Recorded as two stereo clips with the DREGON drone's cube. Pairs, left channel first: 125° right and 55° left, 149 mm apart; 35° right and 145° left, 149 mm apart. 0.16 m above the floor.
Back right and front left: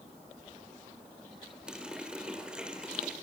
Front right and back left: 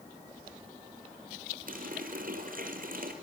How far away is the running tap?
About 2.5 m.